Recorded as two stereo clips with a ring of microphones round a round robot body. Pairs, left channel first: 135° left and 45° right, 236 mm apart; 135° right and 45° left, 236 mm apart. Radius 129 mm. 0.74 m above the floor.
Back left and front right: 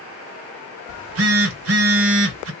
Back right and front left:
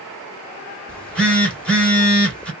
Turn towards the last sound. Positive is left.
turn(degrees=-50)